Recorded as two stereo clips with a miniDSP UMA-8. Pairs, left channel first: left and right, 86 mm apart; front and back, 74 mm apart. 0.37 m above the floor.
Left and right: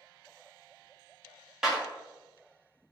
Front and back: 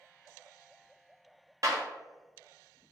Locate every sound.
1.6 s a clap: 170° right, 0.9 m